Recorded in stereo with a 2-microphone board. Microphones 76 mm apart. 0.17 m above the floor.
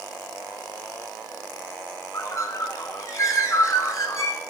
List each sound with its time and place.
2.1 s a bird: 45° left (ahead or behind), 0.7 m